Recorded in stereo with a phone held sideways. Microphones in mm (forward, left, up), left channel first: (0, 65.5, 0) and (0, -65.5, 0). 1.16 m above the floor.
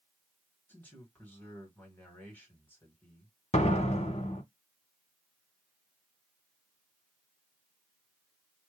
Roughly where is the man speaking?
Centre.